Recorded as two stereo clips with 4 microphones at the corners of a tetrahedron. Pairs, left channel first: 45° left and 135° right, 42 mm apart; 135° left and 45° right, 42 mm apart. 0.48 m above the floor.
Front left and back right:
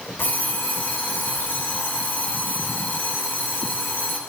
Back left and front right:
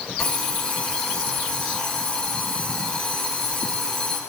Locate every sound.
0.2 s an alarm clock: 65° left, 5.5 m